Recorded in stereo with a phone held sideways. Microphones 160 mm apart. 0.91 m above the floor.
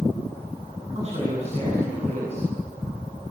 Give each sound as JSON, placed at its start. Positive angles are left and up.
{"t": 0.9, "sound": "a man speaking", "side_deg": -40, "distance_m": 8.0}